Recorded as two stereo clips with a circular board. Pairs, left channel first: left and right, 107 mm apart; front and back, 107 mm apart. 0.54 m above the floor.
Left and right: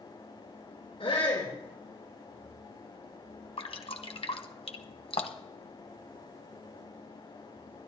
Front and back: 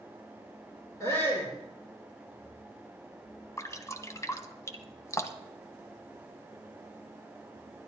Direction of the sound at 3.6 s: 60° left.